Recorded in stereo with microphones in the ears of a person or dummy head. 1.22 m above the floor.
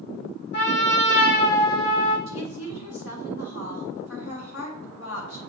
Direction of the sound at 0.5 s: 60° left (ahead or behind).